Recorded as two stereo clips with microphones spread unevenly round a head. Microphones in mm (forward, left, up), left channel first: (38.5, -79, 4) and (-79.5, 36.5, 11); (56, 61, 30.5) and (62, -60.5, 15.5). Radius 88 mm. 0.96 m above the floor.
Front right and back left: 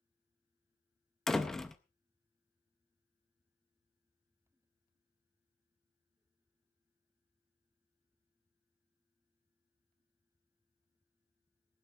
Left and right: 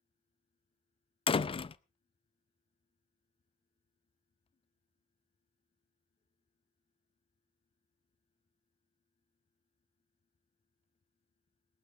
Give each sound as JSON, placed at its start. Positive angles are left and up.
{"t": 1.3, "sound": "a door slam", "azimuth_deg": 45, "distance_m": 0.5}